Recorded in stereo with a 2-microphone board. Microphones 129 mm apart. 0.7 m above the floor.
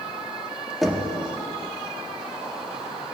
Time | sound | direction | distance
0.8 | knocking | centre (ahead or behind) | 0.8 m